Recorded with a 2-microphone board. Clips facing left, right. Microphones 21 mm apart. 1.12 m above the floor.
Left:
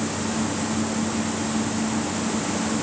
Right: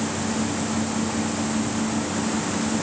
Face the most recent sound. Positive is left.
No sound to turn to.